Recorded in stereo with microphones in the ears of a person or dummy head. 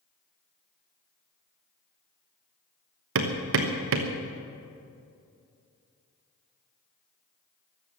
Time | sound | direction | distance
3.1 | hammering | 55° right (ahead or behind) | 1.2 m